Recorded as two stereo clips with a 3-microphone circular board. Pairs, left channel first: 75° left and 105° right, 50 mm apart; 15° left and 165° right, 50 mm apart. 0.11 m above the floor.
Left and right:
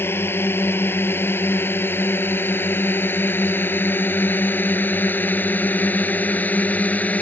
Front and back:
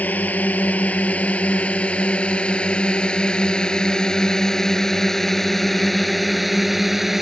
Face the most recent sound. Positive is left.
turn(degrees=110)